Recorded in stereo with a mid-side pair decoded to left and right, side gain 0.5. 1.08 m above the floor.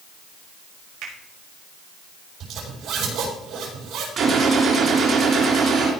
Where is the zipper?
65° right, 6 m.